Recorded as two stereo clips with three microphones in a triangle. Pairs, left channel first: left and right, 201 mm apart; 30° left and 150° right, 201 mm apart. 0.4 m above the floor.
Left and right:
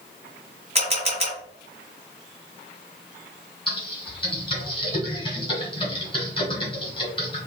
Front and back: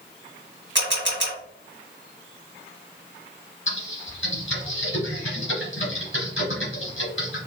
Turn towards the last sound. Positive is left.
turn(degrees=25)